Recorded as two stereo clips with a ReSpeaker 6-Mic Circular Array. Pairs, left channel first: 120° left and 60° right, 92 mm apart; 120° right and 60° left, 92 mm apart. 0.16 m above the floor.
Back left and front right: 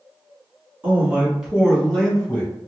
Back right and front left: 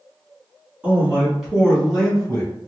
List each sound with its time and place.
0.8 s a man speaking: 5° right, 1.4 m; by 2.5 s 170° left, 1.3 m